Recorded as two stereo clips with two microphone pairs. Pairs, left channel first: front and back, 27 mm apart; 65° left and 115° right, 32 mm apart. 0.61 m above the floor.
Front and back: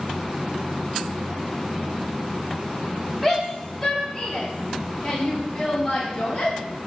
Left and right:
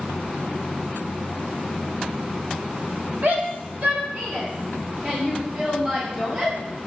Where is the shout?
85° right, 5.5 m; by 6.5 s 60° right, 7 m.